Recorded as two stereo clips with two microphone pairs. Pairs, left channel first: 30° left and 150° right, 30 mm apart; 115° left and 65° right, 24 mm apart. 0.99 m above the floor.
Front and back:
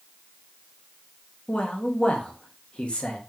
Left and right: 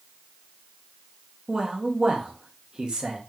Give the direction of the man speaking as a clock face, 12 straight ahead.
12 o'clock.